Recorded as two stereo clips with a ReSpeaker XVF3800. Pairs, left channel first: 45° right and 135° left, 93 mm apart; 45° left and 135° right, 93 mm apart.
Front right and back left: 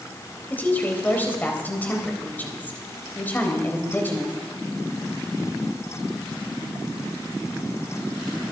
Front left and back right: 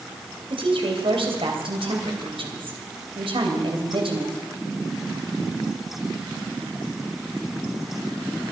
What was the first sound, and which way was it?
A woman speaking, 115° right.